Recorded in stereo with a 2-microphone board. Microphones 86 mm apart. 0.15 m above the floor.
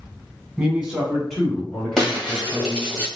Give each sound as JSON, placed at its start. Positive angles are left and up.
{"t": 0.6, "sound": "a man speaking", "side_deg": -15, "distance_m": 1.6}
{"t": 2.0, "sound": "breaking glass", "side_deg": 5, "distance_m": 2.0}